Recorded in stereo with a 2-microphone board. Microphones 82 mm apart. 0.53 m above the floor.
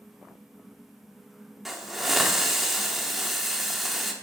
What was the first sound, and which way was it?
A hiss, 5° right (ahead or behind).